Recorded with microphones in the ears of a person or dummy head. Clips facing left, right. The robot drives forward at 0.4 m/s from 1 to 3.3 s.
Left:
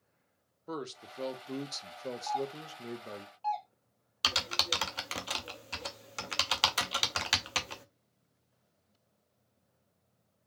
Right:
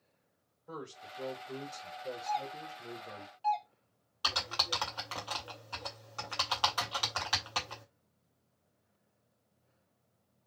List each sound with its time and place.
0.7 s a man speaking: 55° left (ahead or behind), 0.9 m; by 3.3 s 65° left (ahead or behind), 0.8 m
2.3 s a doorbell: 25° right (ahead or behind), 0.6 m; by 3.7 s 15° right (ahead or behind), 0.9 m
4.2 s typing on a keyboard: 25° left (ahead or behind), 0.7 m